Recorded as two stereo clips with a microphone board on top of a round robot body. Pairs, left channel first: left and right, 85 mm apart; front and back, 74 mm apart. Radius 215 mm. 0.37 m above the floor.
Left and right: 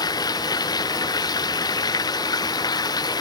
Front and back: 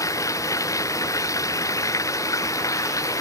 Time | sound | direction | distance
0.0 | running water | 45° left | ?